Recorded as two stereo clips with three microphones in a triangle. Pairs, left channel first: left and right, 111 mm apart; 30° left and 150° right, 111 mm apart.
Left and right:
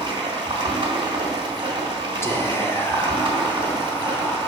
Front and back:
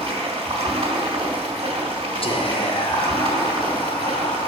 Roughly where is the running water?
Behind right.